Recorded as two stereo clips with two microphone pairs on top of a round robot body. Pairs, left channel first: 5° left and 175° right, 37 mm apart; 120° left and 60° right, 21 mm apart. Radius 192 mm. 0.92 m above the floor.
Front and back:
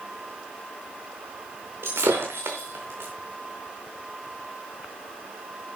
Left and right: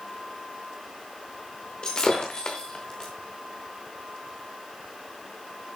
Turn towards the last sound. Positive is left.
turn(degrees=-175)